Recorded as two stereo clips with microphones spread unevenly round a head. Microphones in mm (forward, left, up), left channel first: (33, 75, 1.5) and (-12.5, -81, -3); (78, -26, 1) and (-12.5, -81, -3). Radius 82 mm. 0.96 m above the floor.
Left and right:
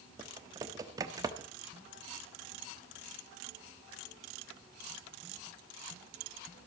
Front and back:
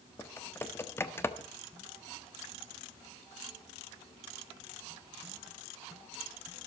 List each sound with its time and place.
0.2 s typing on a keyboard: 35° right, 1.2 m